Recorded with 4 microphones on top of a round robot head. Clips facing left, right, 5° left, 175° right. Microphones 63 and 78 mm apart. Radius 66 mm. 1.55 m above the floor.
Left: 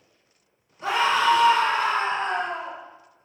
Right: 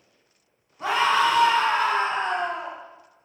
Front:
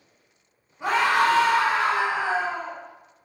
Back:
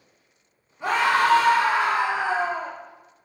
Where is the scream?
75° right, 1.7 m; by 2.7 s 115° right, 0.9 m.